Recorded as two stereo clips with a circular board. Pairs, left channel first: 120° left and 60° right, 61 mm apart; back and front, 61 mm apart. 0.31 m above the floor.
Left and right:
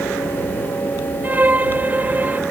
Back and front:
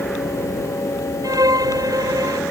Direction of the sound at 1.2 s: 5° left.